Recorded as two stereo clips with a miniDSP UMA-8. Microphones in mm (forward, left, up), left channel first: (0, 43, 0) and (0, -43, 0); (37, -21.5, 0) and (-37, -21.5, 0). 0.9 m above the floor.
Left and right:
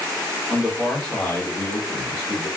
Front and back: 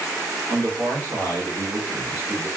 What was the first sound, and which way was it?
A man speaking, 175° right.